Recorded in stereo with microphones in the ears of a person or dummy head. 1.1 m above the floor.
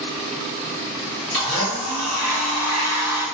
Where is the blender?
5° left (ahead or behind), 1.5 m.